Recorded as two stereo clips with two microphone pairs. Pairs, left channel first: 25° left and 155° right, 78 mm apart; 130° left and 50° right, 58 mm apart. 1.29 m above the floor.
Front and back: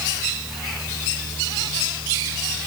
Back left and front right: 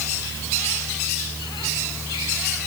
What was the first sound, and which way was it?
Only background noise.